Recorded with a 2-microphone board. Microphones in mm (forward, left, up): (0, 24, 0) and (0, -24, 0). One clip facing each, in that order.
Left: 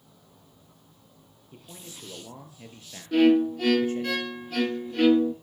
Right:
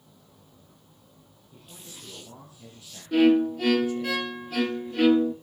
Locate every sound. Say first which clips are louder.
1.5 s a man speaking: left 2 dB; 50° left (ahead or behind), 5 m; by 4.1 s 40° left (ahead or behind), 4 m
3.1 s a violin: even; centre (ahead or behind), 0.8 m